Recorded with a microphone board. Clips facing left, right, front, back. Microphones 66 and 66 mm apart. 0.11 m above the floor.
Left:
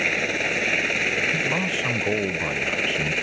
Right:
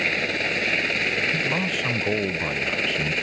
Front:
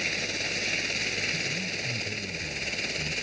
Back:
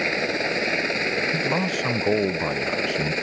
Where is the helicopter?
175° left.